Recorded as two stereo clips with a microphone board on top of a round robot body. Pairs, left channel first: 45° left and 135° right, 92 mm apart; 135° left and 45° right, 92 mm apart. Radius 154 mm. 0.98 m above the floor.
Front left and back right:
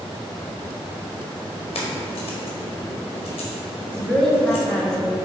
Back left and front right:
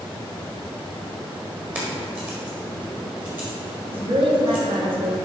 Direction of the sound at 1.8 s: 30° left.